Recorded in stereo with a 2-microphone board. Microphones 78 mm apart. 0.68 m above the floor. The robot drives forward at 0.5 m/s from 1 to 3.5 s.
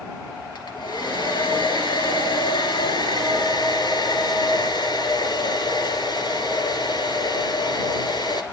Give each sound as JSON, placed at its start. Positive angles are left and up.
{"t": 0.6, "sound": "a hair dryer", "side_deg": 75, "distance_m": 2.5}